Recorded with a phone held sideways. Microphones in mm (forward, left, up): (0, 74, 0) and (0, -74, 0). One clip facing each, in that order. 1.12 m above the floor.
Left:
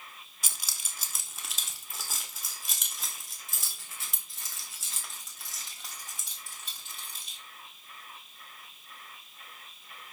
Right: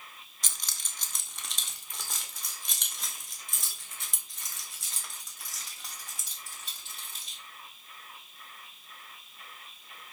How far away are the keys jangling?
About 1.0 m.